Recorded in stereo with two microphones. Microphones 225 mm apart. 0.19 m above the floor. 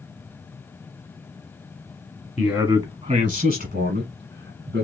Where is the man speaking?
5° right (ahead or behind), 1.1 m; by 4.8 s 55° right (ahead or behind), 1.7 m.